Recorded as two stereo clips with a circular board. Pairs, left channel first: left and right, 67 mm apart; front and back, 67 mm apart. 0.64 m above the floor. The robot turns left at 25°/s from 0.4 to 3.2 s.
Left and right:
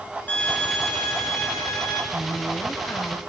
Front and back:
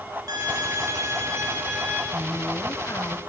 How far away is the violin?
About 6.5 m.